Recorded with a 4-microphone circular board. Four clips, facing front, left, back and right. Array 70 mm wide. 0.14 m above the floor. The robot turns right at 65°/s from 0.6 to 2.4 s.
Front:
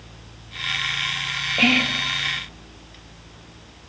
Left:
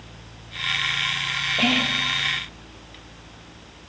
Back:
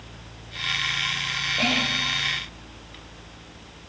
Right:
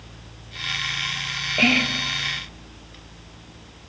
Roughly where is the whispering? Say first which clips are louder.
Right 3 dB, front 6 dB; ahead right.